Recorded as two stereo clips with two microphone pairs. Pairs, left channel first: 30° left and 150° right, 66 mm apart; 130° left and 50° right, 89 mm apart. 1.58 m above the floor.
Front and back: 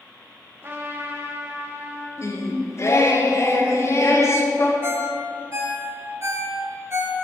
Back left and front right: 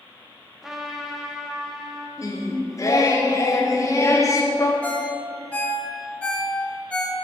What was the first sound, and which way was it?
A trumpet, 125° right.